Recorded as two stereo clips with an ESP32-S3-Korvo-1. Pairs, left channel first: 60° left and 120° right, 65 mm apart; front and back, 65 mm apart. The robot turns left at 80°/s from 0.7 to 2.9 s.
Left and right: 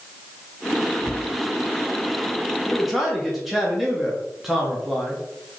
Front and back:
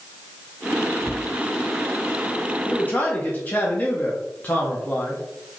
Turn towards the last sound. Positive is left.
turn(degrees=-35)